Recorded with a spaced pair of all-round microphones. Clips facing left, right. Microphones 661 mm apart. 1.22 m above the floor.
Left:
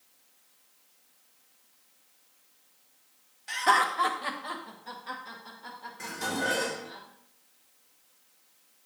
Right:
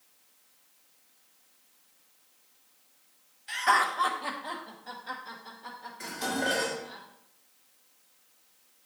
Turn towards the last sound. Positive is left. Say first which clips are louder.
# right 1 dB
turn(degrees=70)  # may be behind; listen again after turning